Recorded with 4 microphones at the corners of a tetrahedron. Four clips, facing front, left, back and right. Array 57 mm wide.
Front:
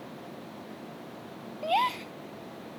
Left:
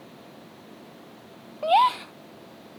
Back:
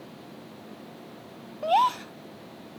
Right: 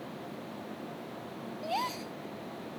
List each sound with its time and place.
1.6 s a gasp: 110° left